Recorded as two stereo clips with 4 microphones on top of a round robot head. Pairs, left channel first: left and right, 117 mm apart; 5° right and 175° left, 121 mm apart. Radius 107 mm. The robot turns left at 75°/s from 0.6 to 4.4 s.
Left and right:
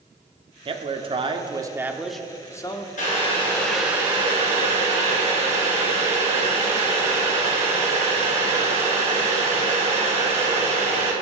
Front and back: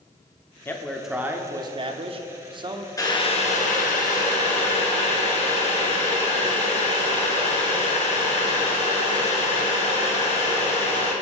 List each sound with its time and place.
0.7 s a man speaking: 70° right, 1.2 m; by 2.9 s 125° left, 1.2 m
3.0 s boiling: 60° left, 2.5 m; by 11.1 s 45° right, 2.5 m